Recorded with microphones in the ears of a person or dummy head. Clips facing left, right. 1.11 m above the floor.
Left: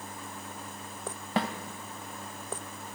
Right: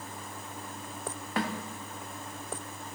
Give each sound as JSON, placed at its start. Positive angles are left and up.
{"t": 1.4, "sound": "a snare drum", "side_deg": 25, "distance_m": 1.1}